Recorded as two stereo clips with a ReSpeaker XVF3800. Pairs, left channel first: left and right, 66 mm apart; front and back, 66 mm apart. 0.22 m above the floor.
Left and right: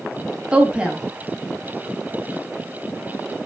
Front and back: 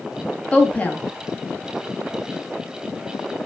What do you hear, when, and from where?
0.5 s a woman speaking: 35° right, 1.6 m